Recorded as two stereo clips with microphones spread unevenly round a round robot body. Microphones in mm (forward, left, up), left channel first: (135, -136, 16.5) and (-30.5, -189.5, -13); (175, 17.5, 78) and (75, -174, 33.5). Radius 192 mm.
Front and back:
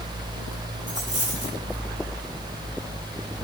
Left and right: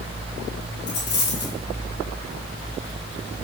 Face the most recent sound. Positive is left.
turn(degrees=75)